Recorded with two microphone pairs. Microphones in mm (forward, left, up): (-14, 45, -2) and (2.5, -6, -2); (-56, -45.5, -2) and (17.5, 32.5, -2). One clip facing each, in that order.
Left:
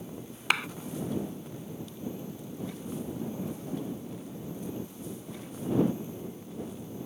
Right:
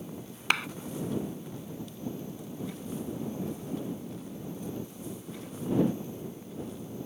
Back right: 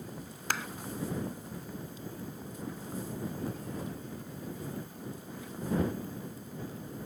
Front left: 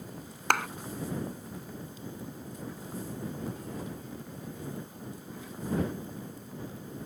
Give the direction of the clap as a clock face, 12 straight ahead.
11 o'clock.